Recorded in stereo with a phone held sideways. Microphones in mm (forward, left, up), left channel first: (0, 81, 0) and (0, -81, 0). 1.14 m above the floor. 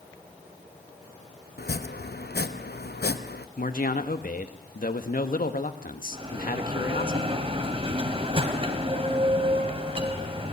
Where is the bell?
35° right (ahead or behind), 2.5 m.